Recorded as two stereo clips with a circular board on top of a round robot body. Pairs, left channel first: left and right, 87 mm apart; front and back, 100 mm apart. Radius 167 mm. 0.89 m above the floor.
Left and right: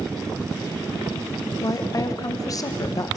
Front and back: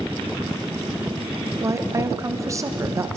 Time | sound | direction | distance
1.6 | a woman speaking | 125° left | 1.4 m